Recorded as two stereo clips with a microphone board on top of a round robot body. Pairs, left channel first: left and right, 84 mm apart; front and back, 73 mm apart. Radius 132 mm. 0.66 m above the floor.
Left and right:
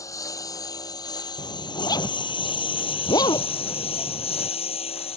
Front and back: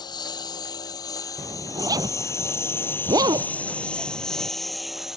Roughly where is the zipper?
Behind left.